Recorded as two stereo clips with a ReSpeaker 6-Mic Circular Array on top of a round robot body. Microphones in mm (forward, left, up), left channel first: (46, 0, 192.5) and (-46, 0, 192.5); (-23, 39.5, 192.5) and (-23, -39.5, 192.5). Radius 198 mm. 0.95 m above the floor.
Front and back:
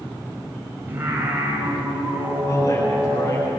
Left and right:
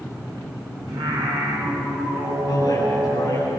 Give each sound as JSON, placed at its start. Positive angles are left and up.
{"t": 0.9, "sound": "singing", "azimuth_deg": -110, "distance_m": 7.5}
{"t": 2.5, "sound": "a man speaking", "azimuth_deg": 50, "distance_m": 10.0}